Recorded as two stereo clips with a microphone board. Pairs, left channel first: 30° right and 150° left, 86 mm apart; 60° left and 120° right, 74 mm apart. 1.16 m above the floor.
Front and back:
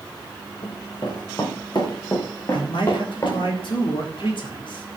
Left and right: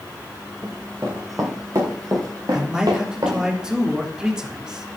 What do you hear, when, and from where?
0.6 s running footsteps: 60° right, 4.5 m; by 3.5 s 85° right, 7 m
2.5 s a man speaking: 40° right, 3.5 m